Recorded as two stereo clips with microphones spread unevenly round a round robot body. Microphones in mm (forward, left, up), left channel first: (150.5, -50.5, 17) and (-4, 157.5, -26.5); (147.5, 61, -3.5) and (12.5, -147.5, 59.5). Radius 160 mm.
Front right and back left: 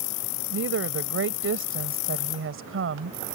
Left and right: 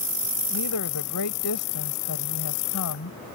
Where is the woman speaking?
90° left.